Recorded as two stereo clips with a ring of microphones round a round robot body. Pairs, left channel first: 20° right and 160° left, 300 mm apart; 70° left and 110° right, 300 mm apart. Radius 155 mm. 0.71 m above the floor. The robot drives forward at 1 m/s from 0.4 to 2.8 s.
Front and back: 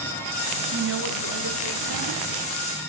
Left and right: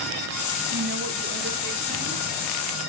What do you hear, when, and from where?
0.7 s a woman speaking: 155° right, 1.5 m; by 2.2 s 170° right, 3 m